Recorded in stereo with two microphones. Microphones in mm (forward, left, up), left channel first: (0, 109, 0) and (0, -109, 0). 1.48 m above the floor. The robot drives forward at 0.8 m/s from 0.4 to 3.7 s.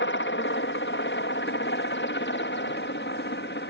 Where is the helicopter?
60° left (ahead or behind); by 3.7 s 55° left (ahead or behind).